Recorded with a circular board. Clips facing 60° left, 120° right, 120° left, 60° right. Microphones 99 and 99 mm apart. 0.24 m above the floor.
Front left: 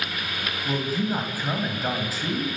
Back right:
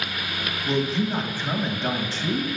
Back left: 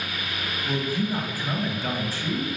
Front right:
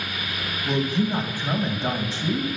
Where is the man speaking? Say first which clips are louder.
Back right 2 dB, front right 4 dB; 15° right, 1.2 m.